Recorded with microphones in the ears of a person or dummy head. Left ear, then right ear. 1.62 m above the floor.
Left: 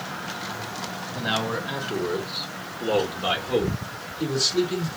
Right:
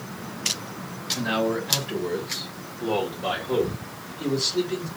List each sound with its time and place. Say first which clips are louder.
1.1 s a man speaking: right 1 dB; 50° left (ahead or behind), 1.8 m; by 4.9 s 85° left, 3.5 m